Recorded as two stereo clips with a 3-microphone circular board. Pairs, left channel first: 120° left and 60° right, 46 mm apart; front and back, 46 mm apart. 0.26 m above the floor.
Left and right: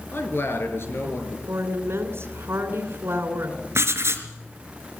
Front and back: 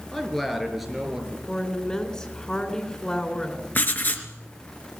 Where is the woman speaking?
65° right, 3 m.